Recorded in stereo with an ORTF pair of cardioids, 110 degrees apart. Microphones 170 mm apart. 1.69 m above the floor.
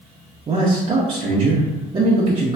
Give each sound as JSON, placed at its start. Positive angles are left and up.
{"t": 0.5, "sound": "a man speaking", "azimuth_deg": -30, "distance_m": 0.6}